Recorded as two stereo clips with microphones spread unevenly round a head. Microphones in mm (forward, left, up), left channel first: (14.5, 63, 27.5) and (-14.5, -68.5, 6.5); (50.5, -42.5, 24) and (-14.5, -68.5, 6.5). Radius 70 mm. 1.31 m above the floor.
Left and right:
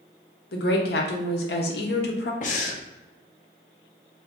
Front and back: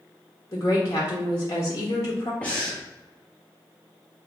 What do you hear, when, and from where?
0.5 s a woman speaking: 90° left, 0.9 m
2.4 s breathing: 105° left, 0.7 m